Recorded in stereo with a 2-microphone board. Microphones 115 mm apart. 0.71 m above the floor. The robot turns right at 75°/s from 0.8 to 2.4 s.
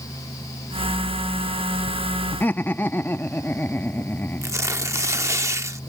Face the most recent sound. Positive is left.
turn(degrees=-25)  # may be behind; listen again after turning